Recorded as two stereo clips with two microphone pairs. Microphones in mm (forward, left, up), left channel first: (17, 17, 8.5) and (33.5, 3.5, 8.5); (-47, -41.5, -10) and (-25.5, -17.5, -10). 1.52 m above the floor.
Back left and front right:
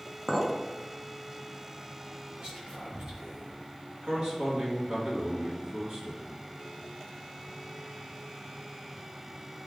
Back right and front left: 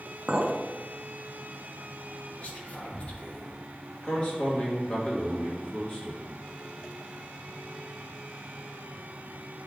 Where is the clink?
15° left, 1.0 m.